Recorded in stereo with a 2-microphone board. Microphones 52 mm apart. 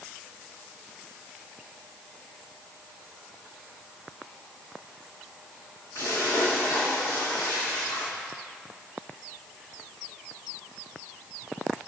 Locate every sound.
6.0 s a splash: 75° left (ahead or behind), 5 m